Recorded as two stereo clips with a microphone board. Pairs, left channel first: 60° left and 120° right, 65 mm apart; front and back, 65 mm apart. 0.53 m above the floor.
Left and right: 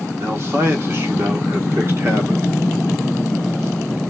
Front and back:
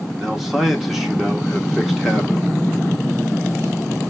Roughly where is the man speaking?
Right.